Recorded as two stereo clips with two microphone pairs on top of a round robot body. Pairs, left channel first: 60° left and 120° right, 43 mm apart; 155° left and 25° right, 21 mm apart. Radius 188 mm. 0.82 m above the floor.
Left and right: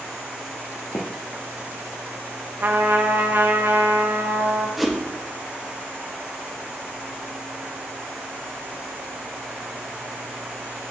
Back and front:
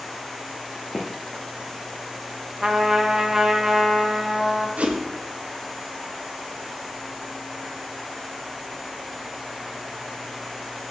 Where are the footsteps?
80° left, 1.1 m.